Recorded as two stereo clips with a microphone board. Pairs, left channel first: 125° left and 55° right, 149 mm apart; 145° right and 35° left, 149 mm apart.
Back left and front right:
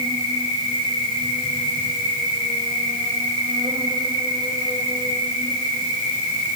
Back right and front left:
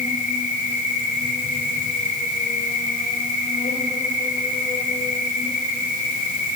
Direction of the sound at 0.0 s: 115° right.